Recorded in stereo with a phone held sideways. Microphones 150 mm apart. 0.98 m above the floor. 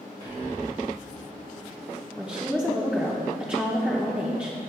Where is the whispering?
70° right (ahead or behind), 1.6 m.